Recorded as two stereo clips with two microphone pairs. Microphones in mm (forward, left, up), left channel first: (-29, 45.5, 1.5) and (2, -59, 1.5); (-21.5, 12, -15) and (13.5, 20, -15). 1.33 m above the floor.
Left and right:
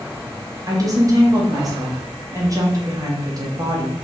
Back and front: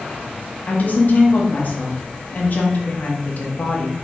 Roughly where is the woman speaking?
Behind right.